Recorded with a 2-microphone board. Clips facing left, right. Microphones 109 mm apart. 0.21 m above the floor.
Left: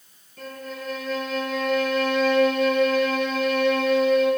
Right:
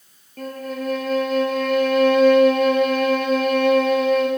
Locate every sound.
0.4 s a violin: 55° right (ahead or behind), 1.6 m